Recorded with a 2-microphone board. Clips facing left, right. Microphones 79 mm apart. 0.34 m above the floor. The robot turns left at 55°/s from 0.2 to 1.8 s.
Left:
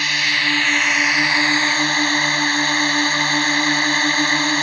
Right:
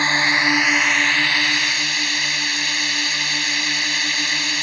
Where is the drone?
145° right; by 4.6 s 130° left.